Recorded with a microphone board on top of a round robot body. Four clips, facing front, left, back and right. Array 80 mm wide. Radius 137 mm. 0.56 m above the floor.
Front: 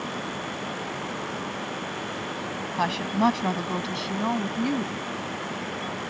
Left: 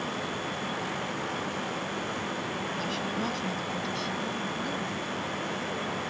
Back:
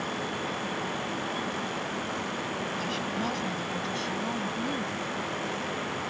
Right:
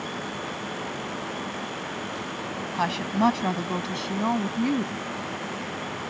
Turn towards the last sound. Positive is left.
turn(degrees=-65)